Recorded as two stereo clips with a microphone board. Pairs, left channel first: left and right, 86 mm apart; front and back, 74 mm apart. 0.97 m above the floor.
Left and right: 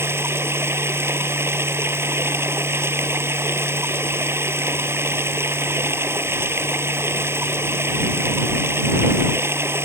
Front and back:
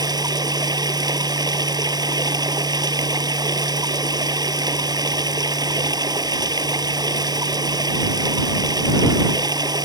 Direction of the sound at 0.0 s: 150° right.